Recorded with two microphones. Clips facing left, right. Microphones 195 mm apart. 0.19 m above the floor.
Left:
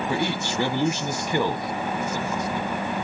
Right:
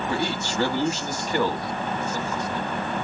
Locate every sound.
0.1 s a man speaking: 15° left (ahead or behind), 1.0 m